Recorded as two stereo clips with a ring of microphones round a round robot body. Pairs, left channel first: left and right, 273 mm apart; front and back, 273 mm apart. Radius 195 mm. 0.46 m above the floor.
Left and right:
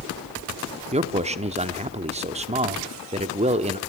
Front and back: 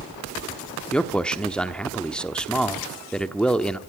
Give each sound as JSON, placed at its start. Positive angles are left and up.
{"t": 0.9, "sound": "a man speaking", "azimuth_deg": -80, "distance_m": 1.1}